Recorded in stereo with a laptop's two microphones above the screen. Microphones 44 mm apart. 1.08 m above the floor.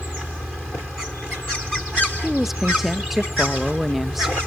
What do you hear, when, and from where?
2.2 s a woman speaking: 5° right (ahead or behind), 1.1 m